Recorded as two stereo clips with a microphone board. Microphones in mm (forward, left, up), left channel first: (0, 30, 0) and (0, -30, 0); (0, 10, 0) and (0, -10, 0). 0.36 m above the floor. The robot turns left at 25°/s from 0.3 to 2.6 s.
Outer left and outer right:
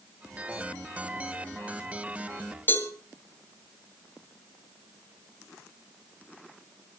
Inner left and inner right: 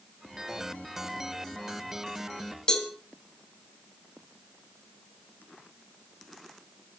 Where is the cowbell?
35° left (ahead or behind), 2.5 m.